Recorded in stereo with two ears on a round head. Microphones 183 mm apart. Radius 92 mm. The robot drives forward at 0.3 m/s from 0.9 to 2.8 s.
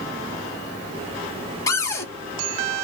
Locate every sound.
1.7 s a cupboard door: 15° left (ahead or behind), 0.6 m